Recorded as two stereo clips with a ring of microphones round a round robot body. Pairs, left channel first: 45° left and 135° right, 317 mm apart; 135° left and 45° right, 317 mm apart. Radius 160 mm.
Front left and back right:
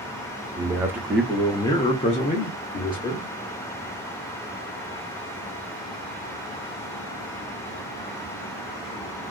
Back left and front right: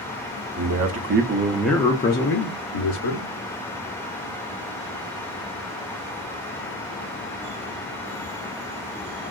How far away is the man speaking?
About 0.9 m.